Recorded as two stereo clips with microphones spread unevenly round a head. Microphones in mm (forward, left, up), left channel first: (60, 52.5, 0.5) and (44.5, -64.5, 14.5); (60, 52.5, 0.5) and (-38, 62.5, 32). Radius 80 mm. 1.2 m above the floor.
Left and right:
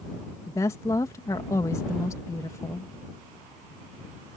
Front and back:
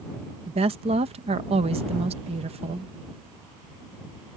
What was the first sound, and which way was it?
A woman speaking, 155° left.